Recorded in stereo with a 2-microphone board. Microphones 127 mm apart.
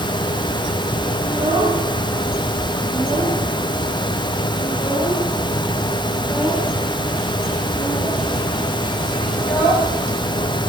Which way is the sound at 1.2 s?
35° right (ahead or behind).